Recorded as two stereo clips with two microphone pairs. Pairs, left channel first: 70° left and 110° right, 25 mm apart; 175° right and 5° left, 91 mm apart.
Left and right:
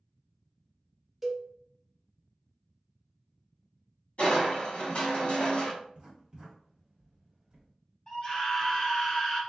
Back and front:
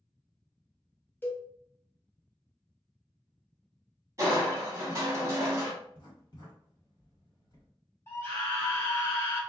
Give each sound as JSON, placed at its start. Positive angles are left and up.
{"t": 1.2, "sound": "a cowbell", "azimuth_deg": 180, "distance_m": 0.5}
{"t": 4.2, "sound": "crushing", "azimuth_deg": 50, "distance_m": 1.2}
{"t": 5.8, "sound": "writing", "azimuth_deg": -155, "distance_m": 1.6}
{"t": 8.1, "sound": "a scream", "azimuth_deg": 125, "distance_m": 1.5}